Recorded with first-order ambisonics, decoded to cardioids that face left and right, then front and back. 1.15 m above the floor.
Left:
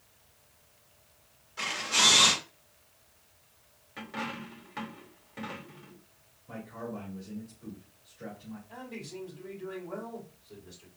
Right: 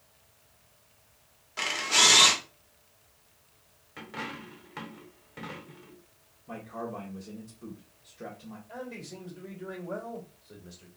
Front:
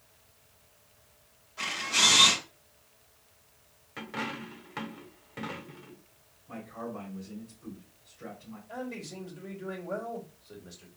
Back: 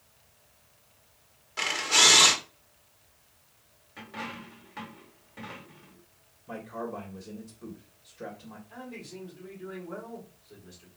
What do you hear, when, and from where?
1.6 s a camera shutter: 135° right, 1.4 m
4.0 s a dropped coin: 10° right, 0.8 m
6.5 s a man speaking: 140° right, 1.6 m
8.7 s a man speaking: 35° right, 2.5 m